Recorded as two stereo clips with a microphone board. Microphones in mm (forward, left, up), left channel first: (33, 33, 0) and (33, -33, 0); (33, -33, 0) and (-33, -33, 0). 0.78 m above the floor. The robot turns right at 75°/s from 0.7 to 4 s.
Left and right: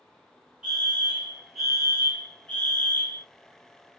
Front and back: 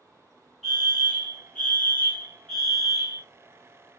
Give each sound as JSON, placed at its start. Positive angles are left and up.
{"t": 0.6, "sound": "a fire alarm", "azimuth_deg": -70, "distance_m": 1.4}